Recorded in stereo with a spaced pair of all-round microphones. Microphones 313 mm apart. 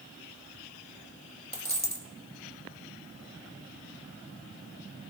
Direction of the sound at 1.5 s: 30° right (ahead or behind).